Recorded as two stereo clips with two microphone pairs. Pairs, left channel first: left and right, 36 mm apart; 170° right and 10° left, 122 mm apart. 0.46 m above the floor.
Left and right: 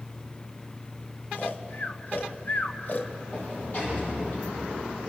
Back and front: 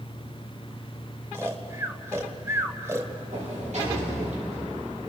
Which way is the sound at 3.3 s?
35° left.